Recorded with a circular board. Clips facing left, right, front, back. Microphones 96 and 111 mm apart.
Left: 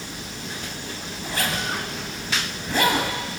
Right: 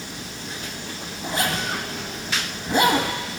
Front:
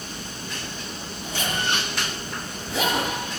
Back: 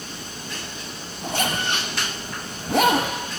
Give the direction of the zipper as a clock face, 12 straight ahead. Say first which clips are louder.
Right 2 dB, back 3 dB; 5 o'clock.